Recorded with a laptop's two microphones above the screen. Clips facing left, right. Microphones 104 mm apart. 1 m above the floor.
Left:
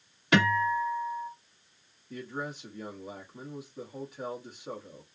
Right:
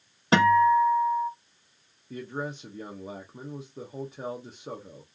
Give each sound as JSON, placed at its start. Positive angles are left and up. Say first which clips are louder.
{"t": 0.3, "sound": "a guitar", "louder": "right 7 dB", "side_deg": -30, "distance_m": 1.0}
{"t": 2.1, "sound": "a man speaking", "louder": "right 3 dB", "side_deg": -25, "distance_m": 0.6}